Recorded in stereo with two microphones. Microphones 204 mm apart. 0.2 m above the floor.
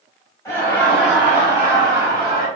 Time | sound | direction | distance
0.5 | laughter | 15° left (ahead or behind) | 1.5 m